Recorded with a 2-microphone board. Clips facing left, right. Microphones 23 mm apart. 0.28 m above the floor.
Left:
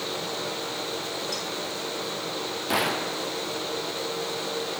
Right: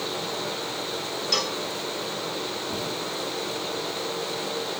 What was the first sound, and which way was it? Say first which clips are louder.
A cowbell: right 6 dB; 55° right (ahead or behind).